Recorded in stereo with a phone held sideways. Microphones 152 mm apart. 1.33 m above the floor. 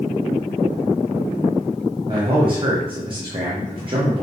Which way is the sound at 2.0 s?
35° right (ahead or behind).